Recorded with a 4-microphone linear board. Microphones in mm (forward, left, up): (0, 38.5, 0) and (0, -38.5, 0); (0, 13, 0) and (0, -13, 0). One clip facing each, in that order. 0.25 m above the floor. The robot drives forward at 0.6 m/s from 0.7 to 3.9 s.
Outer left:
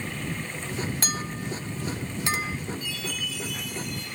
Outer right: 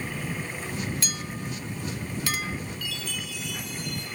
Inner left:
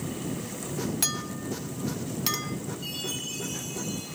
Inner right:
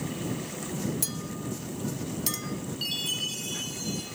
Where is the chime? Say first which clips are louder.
Outer left 2 dB, inner right 4 dB; 75° right (ahead or behind), 7.5 m; by 4.0 s 70° right (ahead or behind), 7.5 m.